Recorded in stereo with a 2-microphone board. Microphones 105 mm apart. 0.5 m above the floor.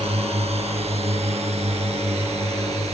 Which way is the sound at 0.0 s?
75° right (ahead or behind).